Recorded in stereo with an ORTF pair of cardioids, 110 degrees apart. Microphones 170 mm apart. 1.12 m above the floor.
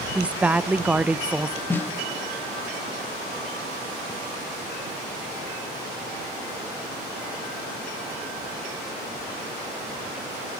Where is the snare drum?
10° left, 1.3 m.